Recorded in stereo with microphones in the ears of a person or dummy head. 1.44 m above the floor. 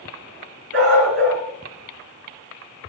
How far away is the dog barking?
About 5.5 m.